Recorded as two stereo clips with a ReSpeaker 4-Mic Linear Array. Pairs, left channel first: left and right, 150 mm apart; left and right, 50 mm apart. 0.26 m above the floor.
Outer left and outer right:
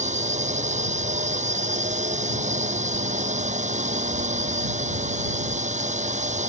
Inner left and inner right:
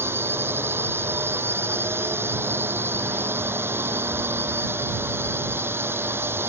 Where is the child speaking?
No child speaking in this recording.